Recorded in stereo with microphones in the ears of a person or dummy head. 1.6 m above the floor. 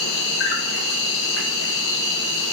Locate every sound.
0.0 s an insect: 70° left (ahead or behind), 1.0 m